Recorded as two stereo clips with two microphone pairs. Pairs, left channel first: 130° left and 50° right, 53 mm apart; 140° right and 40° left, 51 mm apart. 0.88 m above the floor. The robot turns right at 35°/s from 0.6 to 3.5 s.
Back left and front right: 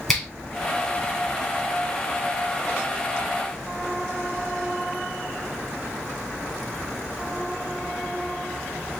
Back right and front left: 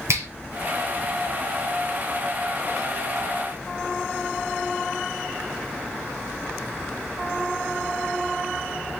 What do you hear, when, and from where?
0.1 s a finger snap: 45° left, 2.5 m